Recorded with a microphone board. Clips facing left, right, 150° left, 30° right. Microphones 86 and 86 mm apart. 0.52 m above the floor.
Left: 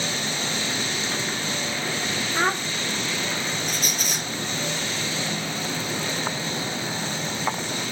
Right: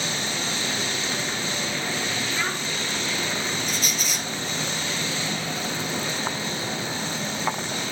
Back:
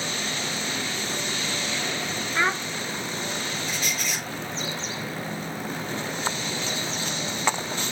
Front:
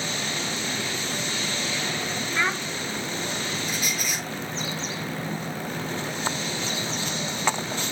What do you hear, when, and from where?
2.4 s a child speaking: 75° left, 0.6 m
3.7 s a squeak: 50° left, 4.5 m